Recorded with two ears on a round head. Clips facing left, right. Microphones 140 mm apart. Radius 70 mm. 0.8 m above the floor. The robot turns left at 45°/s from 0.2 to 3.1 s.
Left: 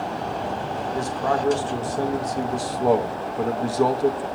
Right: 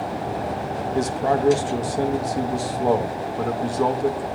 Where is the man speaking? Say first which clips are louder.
Right 3 dB; 20° right (ahead or behind), 0.6 m; by 4.3 s 5° left (ahead or behind), 0.6 m.